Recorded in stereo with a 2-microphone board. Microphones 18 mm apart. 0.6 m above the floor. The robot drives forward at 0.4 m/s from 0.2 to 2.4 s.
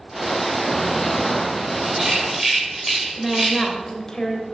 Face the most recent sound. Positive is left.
turn(degrees=35)  # may be behind; listen again after turning